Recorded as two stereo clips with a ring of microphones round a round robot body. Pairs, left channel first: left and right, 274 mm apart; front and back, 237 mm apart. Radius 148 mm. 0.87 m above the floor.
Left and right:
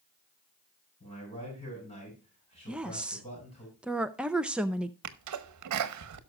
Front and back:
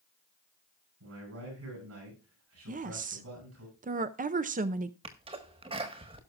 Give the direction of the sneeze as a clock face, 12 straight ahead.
4 o'clock.